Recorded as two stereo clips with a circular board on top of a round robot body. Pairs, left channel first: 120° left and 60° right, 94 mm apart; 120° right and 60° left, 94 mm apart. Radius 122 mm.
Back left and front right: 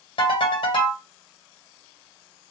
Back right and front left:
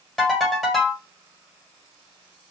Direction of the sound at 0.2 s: 150° left.